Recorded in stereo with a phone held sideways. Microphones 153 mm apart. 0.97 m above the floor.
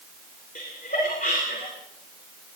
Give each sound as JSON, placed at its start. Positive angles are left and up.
{"t": 0.6, "sound": "laughter", "side_deg": 70, "distance_m": 2.5}